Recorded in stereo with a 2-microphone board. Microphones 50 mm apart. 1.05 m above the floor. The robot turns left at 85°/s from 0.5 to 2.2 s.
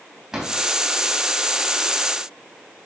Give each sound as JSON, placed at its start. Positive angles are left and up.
{"t": 0.3, "sound": "a drawer", "side_deg": -5, "distance_m": 3.0}